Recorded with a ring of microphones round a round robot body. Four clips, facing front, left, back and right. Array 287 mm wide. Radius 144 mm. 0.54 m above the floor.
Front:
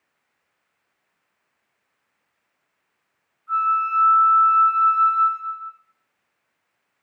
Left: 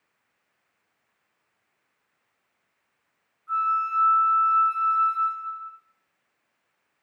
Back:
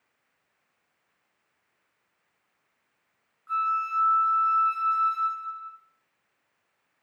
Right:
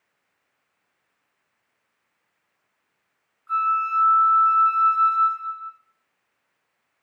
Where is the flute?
135° right, 1.2 m.